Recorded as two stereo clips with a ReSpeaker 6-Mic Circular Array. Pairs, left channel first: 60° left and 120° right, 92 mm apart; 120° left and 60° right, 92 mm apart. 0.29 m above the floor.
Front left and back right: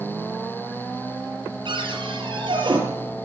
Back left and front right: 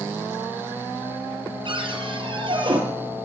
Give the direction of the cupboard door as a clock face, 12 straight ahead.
3 o'clock.